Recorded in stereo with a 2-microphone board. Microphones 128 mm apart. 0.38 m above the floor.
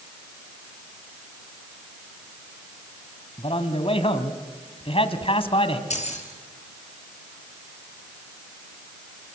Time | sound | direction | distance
3.4 | a man speaking | 50° left (ahead or behind) | 2.5 m
5.9 | keys jangling | 60° left (ahead or behind) | 5 m